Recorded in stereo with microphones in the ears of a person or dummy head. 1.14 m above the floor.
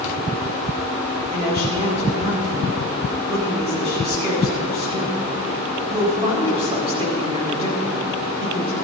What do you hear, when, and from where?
1.3 s a woman speaking: 25° right (ahead or behind), 4 m